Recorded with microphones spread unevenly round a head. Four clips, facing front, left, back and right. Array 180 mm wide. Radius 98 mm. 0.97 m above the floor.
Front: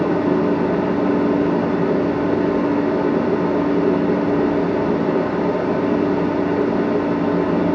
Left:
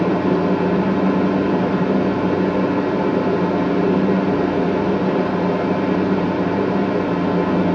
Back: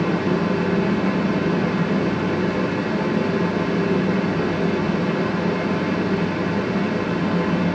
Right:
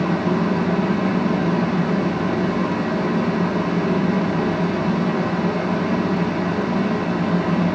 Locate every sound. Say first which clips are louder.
0.0 s a fan: left 3 dB, front 4 dB; 35° left, 1.7 m